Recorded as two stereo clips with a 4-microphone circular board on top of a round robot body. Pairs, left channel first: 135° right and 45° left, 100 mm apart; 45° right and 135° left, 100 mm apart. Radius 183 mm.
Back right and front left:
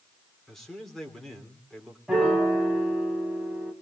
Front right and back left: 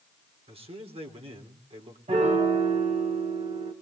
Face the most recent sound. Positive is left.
turn(degrees=130)